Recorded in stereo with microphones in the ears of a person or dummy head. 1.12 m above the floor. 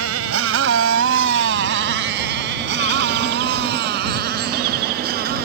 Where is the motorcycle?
85° right; by 5.5 s 55° right (ahead or behind).